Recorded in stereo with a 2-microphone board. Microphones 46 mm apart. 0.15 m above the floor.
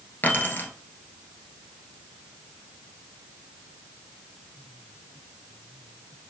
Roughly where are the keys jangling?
Left.